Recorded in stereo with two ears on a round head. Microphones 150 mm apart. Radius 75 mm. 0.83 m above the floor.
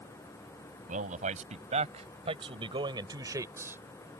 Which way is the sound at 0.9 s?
50° right (ahead or behind).